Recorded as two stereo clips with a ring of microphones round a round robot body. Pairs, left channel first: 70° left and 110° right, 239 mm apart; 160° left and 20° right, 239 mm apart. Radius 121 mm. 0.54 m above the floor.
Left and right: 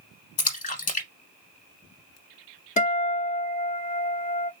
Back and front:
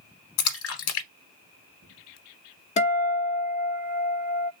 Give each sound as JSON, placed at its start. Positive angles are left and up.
{"t": 0.4, "sound": "a splash", "azimuth_deg": 125, "distance_m": 1.1}
{"t": 2.8, "sound": "a guitar", "azimuth_deg": 110, "distance_m": 1.1}